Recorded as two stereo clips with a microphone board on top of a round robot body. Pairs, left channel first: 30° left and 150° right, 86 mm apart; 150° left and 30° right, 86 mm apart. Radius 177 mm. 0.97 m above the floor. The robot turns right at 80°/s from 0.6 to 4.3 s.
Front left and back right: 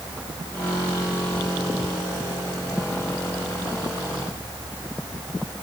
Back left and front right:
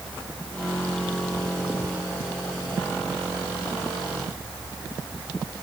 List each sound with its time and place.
Only background noise.